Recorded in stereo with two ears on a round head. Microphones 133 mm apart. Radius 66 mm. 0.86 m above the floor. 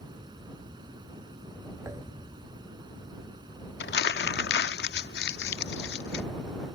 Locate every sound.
0.0 s running water: 30° right (ahead or behind)
1.9 s a thud: 20° right (ahead or behind)
3.8 s crumpling: 75° left (ahead or behind)